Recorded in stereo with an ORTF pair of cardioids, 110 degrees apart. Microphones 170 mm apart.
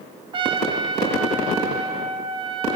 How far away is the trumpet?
About 0.6 m.